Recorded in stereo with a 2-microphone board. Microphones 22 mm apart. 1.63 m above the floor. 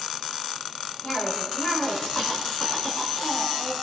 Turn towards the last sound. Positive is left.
turn(degrees=55)  # may be behind; listen again after turning